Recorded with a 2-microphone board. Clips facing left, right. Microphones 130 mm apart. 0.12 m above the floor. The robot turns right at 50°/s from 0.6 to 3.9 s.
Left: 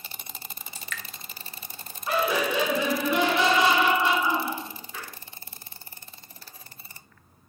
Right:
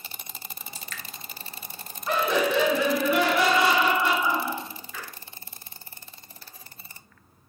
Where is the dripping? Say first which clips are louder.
Left 4 dB; 30° right (ahead or behind), 0.5 m; by 1.0 s 40° right (ahead or behind), 0.5 m.